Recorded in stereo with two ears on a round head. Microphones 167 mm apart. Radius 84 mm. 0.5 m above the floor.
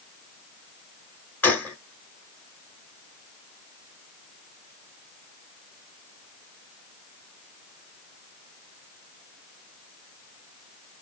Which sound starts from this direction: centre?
A gunshot, at 1.4 s.